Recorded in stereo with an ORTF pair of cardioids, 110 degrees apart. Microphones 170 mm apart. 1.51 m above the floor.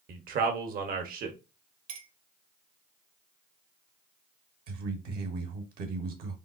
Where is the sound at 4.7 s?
65° right, 1.2 m.